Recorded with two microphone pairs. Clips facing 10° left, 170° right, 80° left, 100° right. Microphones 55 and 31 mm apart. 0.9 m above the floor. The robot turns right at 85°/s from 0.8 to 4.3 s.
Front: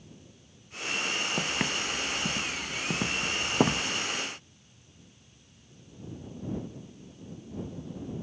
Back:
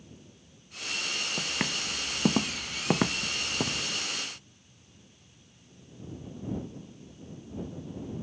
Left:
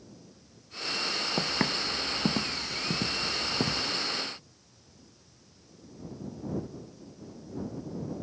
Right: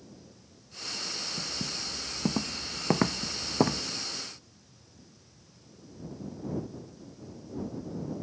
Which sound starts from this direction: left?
Footsteps, at 1.4 s.